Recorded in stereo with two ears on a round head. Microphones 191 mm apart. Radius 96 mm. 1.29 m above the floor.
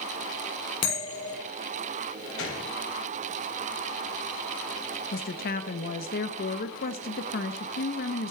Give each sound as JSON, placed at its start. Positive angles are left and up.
{"t": 0.8, "sound": "a bell", "side_deg": 30, "distance_m": 6.5}
{"t": 2.4, "sound": "a gunshot", "side_deg": 70, "distance_m": 3.5}
{"t": 5.1, "sound": "a woman speaking", "side_deg": 45, "distance_m": 0.7}